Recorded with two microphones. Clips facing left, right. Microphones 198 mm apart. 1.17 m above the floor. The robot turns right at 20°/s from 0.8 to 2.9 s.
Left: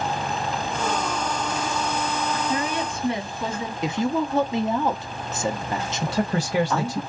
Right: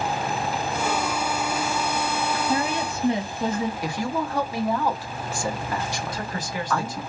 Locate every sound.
2.5 s a woman speaking: 45° right (ahead or behind), 1.4 m; by 3.7 s 35° right (ahead or behind), 1.4 m
3.8 s a woman speaking: 20° left (ahead or behind), 0.6 m
6.0 s a man speaking: 65° left (ahead or behind), 0.7 m